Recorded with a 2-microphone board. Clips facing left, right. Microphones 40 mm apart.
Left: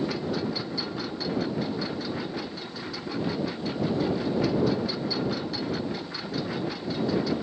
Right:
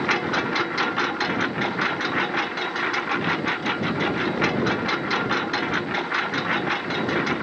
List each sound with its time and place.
0.0 s a lawn mower: 75° right (ahead or behind); by 7.4 s 70° right (ahead or behind)